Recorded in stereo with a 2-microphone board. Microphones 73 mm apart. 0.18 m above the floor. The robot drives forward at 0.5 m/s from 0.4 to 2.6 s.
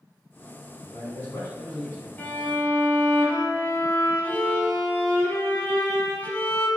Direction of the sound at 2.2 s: 25° left (ahead or behind).